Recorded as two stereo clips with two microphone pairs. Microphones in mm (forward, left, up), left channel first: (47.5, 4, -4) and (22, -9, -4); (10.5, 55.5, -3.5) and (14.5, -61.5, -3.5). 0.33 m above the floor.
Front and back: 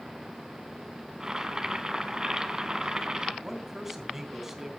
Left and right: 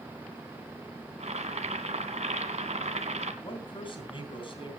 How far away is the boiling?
About 1.8 m.